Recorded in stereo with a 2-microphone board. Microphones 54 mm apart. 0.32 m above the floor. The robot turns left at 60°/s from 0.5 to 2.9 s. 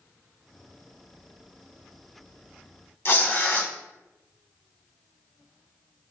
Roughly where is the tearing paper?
Left.